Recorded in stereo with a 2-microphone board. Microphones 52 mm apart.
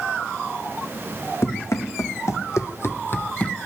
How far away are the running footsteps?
About 1.7 m.